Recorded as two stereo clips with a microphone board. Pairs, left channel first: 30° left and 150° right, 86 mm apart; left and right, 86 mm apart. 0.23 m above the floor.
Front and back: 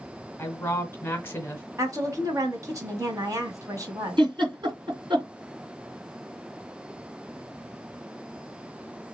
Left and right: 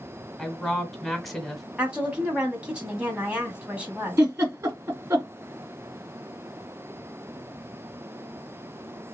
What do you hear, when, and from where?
0.4 s a woman speaking: 5° left, 1.3 m
1.8 s a woman speaking: 160° right, 1.8 m
4.2 s a giggle: 145° right, 2.5 m